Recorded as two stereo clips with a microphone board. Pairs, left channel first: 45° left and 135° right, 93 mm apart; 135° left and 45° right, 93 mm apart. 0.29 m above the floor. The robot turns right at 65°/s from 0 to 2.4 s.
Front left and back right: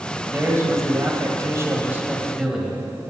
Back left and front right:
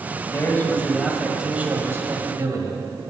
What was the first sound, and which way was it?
A man speaking, 170° left.